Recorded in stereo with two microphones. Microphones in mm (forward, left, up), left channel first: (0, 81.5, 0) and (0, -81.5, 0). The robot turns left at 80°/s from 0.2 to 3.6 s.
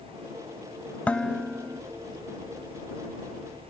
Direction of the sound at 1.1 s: 10° left (ahead or behind).